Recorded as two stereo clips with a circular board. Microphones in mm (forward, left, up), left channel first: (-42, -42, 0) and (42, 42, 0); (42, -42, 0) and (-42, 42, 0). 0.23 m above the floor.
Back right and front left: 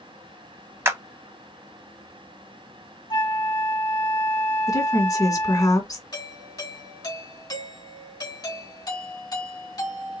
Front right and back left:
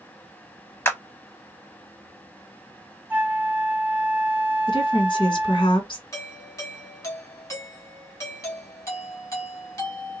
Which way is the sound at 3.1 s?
150° right.